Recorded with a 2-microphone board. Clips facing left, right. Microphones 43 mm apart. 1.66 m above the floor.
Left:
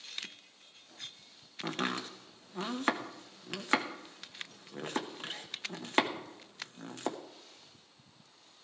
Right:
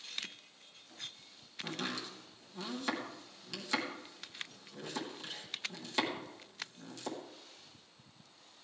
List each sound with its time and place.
1.6 s chopping: 45° left (ahead or behind), 1.0 m